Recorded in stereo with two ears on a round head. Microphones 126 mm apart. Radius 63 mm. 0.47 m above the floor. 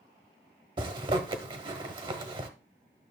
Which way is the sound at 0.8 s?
35° right (ahead or behind).